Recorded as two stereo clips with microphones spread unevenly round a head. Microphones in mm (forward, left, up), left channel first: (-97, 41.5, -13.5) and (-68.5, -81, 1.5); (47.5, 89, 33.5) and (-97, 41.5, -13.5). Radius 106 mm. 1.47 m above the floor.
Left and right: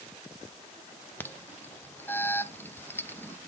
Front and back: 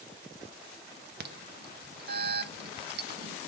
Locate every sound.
1.2 s an alarm: straight behind, 0.7 m